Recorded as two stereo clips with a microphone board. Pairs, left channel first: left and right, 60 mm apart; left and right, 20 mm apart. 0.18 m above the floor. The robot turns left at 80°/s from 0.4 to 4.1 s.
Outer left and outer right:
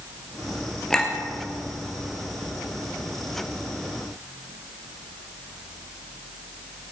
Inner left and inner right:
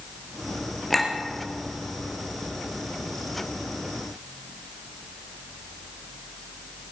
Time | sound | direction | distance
0.9 | a clink | 10° left (ahead or behind) | 2.5 m